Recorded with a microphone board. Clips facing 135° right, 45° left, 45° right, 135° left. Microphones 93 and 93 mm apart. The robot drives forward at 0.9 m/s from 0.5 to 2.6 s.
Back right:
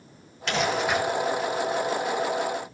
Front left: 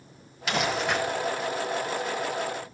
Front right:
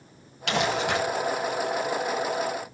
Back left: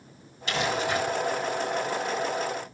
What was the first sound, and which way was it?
Crumpling, 40° right.